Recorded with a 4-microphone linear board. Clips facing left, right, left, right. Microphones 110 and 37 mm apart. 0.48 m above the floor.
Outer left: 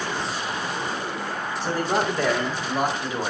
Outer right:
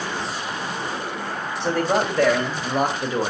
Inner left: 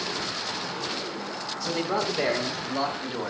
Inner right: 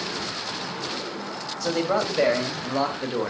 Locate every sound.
1.6 s a man speaking: 70° right (ahead or behind), 2 m; by 3.3 s 40° right (ahead or behind), 1.4 m